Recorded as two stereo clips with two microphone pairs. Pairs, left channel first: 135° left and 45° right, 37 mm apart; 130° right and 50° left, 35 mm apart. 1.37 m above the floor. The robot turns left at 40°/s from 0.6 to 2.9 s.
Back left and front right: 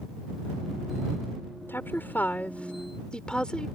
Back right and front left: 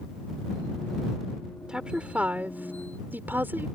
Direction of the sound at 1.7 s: 120° left.